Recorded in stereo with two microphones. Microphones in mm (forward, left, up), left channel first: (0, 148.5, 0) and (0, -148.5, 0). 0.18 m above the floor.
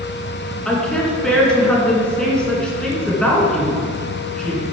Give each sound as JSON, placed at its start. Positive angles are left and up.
{"t": 0.7, "sound": "a woman speaking", "side_deg": 5, "distance_m": 2.5}